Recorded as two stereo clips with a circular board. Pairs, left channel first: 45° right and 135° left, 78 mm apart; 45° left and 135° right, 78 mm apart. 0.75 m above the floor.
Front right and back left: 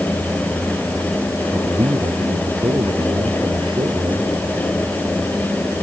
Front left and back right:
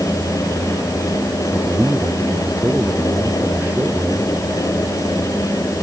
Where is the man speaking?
155° left; by 4.3 s 160° left.